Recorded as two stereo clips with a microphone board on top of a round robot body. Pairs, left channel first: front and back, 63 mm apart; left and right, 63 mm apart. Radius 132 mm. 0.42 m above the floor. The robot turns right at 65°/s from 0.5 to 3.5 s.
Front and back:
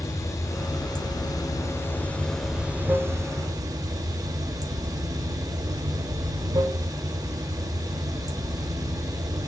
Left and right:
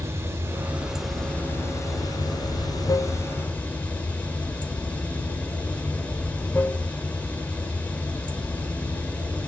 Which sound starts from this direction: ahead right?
Running water, at 0.0 s.